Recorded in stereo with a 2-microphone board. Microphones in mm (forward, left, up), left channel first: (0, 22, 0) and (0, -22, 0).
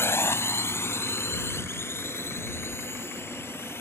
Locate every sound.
0.0 s a drone: 70° left (ahead or behind); by 3.8 s 65° left (ahead or behind)